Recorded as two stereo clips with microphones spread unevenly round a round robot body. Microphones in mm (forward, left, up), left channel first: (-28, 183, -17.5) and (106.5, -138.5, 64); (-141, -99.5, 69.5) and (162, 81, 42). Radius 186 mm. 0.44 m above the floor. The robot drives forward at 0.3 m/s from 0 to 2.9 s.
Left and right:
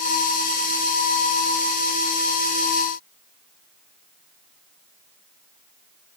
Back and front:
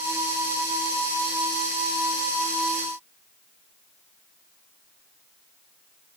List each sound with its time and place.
Only background noise.